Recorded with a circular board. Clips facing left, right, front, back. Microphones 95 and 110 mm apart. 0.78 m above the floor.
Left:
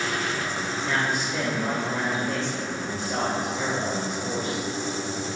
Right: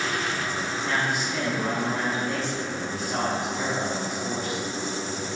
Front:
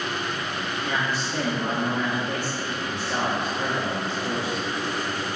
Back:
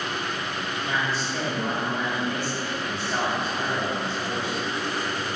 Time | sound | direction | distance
0.8 | a man speaking | 15° right | 0.8 m